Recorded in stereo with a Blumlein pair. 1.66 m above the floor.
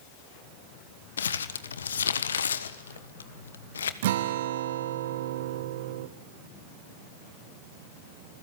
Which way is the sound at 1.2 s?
70° left.